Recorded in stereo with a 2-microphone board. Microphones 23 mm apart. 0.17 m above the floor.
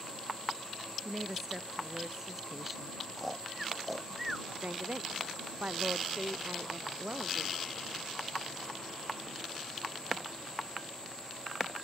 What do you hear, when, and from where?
1.1 s a woman speaking: 10° right (ahead or behind)
3.2 s snoring: centre (ahead or behind)
4.6 s a woman speaking: 70° right (ahead or behind)